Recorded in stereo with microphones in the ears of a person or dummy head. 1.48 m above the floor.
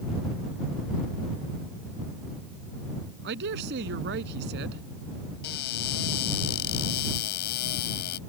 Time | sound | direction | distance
3.2 | a man speaking | 60° right (ahead or behind) | ?
5.4 | a cupboard door | 60° left (ahead or behind) | ?